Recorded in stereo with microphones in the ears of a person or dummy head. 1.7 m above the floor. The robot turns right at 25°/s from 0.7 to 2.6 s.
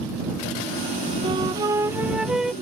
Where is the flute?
35° right; by 2.5 s straight ahead.